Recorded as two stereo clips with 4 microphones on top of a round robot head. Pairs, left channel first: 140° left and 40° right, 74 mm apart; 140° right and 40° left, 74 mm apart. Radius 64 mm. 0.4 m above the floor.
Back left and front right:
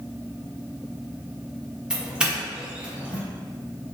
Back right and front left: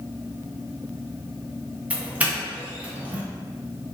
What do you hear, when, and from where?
1.9 s a doorbell: 10° left, 1.4 m